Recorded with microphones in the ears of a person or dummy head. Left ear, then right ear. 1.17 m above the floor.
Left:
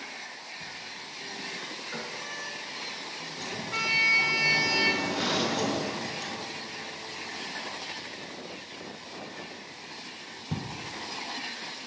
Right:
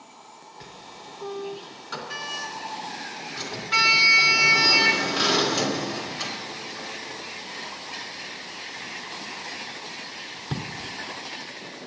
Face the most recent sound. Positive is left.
turn(degrees=-70)  # may be behind; listen again after turning